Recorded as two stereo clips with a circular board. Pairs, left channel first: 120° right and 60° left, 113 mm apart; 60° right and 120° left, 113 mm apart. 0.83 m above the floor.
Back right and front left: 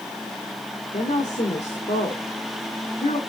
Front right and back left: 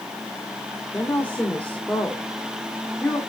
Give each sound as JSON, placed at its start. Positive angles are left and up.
{"t": 0.9, "sound": "a woman speaking", "azimuth_deg": -140, "distance_m": 1.9}